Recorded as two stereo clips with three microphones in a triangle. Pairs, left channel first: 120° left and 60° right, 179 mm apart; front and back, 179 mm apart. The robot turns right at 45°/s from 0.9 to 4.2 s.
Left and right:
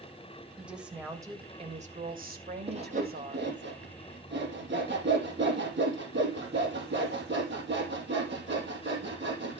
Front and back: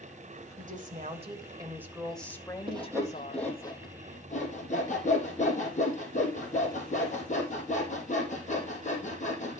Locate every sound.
0.6 s a woman speaking: 145° right, 2 m; by 3.6 s 20° right, 2 m
2.7 s sawing: 115° right, 4 m; by 9.6 s 50° right, 4 m